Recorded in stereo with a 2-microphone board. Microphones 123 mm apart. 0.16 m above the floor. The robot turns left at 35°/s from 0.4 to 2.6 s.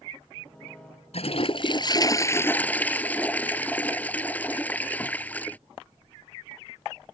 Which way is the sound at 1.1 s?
65° left.